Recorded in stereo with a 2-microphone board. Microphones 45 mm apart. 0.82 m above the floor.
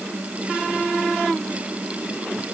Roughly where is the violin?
I don't hear a violin.